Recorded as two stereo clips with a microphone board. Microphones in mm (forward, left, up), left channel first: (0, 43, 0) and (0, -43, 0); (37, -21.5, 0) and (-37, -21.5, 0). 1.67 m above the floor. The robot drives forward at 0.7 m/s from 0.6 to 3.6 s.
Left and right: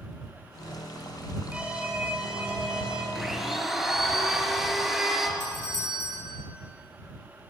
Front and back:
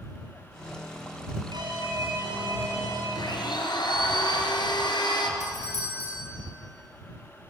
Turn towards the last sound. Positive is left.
turn(degrees=-140)